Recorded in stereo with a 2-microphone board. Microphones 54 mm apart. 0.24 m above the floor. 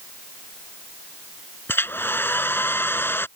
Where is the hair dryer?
40° left (ahead or behind).